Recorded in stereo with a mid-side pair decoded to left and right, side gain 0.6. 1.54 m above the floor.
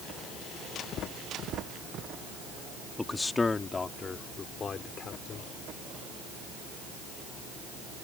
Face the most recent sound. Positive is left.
turn(degrees=40)